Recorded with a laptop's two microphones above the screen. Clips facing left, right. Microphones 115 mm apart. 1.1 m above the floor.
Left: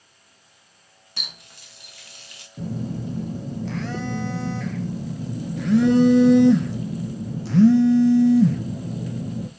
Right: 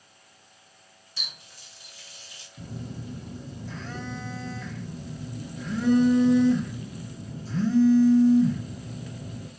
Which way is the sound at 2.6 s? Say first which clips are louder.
Left 10 dB; 70° left (ahead or behind).